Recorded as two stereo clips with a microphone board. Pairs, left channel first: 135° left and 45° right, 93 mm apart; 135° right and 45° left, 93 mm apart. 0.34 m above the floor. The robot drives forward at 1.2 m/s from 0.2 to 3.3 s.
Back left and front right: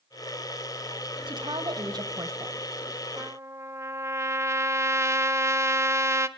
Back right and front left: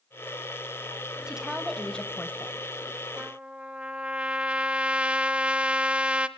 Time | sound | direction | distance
1.3 | a woman speaking | 35° right | 2 m
3.2 | a trumpet | 15° right | 0.9 m